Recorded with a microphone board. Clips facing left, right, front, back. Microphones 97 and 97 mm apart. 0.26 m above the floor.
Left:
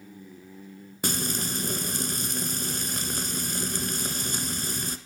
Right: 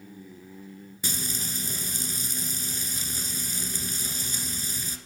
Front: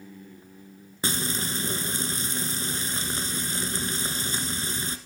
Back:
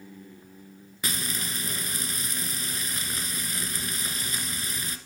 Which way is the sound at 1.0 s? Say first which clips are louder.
Left 6 dB, front 4 dB; 60° left.